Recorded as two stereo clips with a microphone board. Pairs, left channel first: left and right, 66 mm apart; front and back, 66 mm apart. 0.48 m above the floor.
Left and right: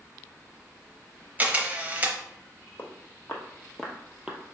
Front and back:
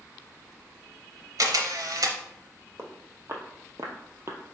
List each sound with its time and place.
1.4 s a camera shutter: 155° right, 0.7 m
2.8 s footsteps: 140° left, 1.1 m; by 4.4 s 155° right, 0.7 m